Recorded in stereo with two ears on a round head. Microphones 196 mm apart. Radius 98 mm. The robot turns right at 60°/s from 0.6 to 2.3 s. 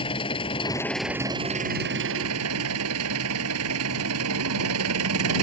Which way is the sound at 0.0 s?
155° left.